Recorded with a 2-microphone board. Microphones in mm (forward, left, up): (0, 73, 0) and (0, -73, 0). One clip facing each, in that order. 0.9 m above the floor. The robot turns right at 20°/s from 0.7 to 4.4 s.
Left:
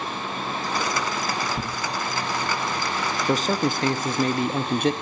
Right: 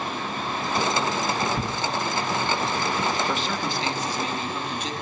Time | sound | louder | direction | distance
1.6 | tearing paper | right 2 dB | 5° right (ahead or behind) | 0.9 m
3.3 | a man speaking | left 5 dB | 40° left (ahead or behind) | 0.9 m